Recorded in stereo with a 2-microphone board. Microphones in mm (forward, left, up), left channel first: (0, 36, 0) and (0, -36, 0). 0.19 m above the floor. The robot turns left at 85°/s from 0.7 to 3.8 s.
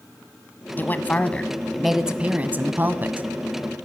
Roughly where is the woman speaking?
Left.